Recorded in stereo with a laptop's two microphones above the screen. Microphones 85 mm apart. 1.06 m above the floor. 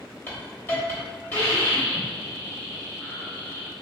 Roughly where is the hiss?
Left.